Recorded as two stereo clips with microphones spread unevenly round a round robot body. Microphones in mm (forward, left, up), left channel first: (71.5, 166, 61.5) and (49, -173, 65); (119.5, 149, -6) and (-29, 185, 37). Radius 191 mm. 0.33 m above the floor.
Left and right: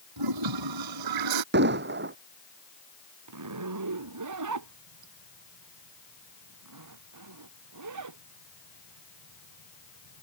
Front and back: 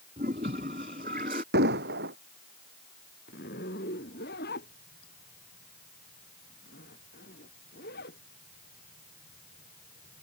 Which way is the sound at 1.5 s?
155° right.